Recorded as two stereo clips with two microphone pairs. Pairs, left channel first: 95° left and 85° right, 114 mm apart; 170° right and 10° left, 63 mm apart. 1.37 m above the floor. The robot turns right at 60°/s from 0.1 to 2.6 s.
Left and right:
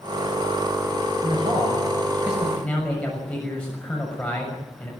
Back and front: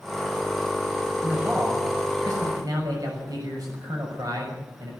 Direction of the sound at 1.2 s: 65° right.